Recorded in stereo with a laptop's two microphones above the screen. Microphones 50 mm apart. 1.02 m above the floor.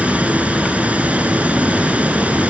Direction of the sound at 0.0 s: 30° right (ahead or behind).